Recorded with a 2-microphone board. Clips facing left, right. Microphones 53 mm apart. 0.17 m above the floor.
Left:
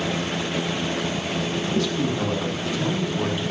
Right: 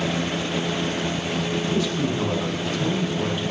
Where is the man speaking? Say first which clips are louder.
Left 2 dB; 10° right (ahead or behind), 1.4 m; by 3.4 s 20° left (ahead or behind), 1.2 m.